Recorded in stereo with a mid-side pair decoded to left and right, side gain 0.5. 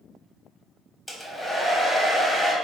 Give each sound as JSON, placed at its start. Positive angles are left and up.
{"t": 1.1, "sound": "a hair dryer", "azimuth_deg": 5, "distance_m": 0.9}